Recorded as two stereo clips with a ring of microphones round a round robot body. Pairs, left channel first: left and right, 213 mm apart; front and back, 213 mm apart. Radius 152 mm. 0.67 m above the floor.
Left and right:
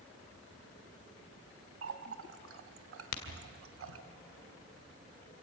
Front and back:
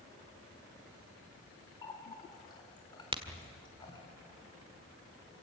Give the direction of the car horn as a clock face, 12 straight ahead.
No car horn in this recording.